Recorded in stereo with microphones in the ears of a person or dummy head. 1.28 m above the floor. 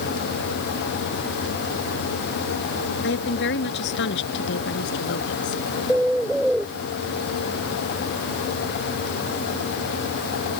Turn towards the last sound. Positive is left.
turn(degrees=0)  # may be behind; listen again after turning